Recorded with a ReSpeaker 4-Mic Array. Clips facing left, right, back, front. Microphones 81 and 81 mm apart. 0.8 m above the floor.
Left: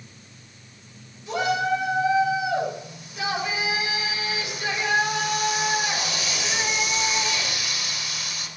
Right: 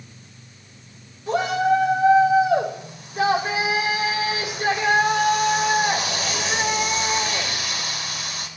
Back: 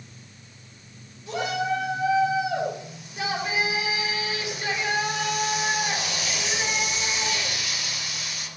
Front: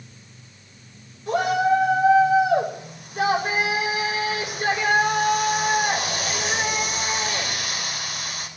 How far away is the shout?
About 4.5 m.